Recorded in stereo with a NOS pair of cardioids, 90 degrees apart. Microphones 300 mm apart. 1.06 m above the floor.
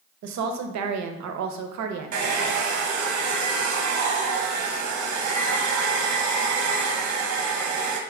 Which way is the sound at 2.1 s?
65° right.